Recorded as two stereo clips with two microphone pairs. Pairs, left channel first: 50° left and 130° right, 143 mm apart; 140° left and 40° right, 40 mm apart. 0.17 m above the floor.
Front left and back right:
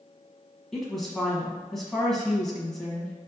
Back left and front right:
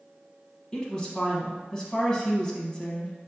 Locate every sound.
0.7 s a woman speaking: 130° left, 1.0 m